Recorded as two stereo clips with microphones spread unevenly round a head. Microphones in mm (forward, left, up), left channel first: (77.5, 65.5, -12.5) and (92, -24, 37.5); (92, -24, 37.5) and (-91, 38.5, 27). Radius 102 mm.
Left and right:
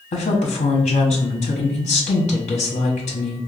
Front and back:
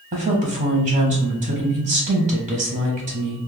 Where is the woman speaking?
105° left, 0.7 m.